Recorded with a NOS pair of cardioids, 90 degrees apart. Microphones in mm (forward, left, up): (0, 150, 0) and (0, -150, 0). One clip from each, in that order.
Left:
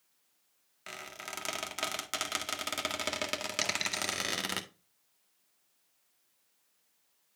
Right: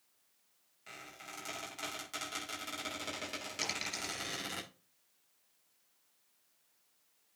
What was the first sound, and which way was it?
A squeak, 70° left.